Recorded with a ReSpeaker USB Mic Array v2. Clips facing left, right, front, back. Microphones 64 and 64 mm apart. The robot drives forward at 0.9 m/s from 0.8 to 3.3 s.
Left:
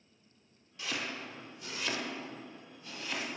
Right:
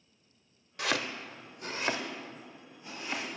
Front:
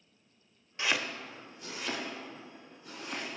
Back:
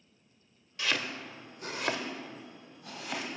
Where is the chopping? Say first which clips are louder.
Right 6 dB, front 1 dB; 65° right, 0.6 m; by 3.3 s 165° right, 2 m.